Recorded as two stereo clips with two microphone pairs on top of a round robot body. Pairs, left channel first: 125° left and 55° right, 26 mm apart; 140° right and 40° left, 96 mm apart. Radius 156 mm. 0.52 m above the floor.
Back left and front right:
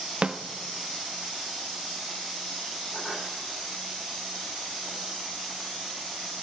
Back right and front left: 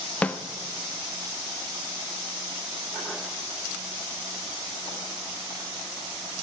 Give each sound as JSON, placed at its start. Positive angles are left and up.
{"t": 0.2, "sound": "a snare drum", "azimuth_deg": -80, "distance_m": 1.3}